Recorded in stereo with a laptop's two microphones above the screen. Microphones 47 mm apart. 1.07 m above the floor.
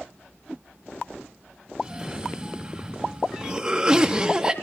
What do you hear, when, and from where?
1.8 s a cough: 15° right (ahead or behind), 1.9 m